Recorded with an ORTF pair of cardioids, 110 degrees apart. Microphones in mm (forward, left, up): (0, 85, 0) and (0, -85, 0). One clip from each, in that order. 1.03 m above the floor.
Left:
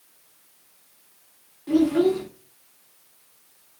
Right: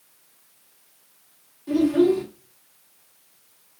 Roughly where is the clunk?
No clunk in this recording.